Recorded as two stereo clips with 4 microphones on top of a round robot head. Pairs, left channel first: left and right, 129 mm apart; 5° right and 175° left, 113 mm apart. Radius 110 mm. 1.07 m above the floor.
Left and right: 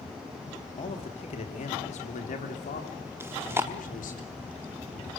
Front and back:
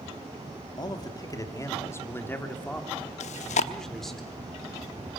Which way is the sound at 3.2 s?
15° right.